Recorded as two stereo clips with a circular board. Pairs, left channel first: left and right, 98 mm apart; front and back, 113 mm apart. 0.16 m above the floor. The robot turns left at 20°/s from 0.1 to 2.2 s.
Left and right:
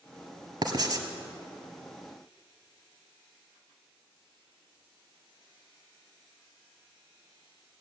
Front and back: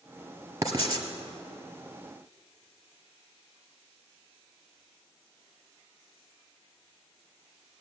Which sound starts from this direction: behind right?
Writing, at 0.6 s.